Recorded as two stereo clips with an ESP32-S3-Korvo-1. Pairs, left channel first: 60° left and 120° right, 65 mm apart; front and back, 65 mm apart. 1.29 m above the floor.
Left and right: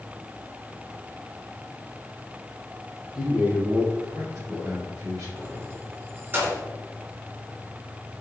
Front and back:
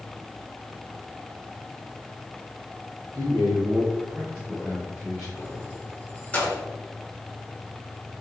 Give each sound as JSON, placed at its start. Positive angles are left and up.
{"t": 3.1, "sound": "a man speaking", "azimuth_deg": 160, "distance_m": 0.9}
{"t": 5.4, "sound": "keys jangling", "azimuth_deg": -65, "distance_m": 0.9}